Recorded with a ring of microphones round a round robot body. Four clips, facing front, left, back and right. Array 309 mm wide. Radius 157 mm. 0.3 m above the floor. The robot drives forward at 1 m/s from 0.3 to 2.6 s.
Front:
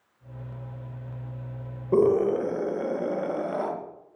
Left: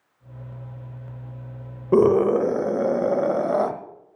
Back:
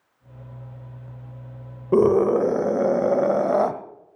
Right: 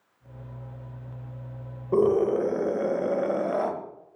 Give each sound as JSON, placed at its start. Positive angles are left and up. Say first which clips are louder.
{"t": 1.9, "sound": "a scream", "louder": "left 5 dB, back 4 dB", "azimuth_deg": 115, "distance_m": 1.0}